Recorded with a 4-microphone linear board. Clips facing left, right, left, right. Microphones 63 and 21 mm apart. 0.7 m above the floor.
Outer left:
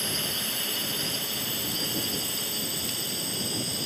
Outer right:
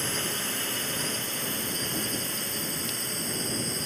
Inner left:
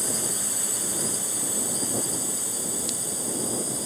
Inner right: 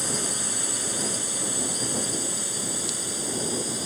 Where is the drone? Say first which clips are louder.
Outer right 1 dB, inner right 1 dB; 20° right (ahead or behind); by 3.9 s 25° right (ahead or behind).